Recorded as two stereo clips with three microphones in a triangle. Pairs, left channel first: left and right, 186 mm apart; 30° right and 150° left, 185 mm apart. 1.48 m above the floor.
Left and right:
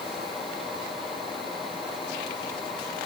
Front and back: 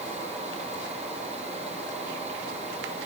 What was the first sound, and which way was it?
Only background noise.